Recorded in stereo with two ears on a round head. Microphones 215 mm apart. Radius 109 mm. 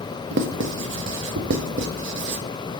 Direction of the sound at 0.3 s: 50° right (ahead or behind).